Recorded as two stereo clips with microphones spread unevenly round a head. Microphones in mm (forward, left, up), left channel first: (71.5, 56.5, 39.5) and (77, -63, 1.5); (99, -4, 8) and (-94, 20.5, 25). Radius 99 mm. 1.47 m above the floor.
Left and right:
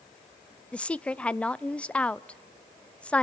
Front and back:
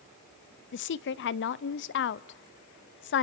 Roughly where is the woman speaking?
Ahead.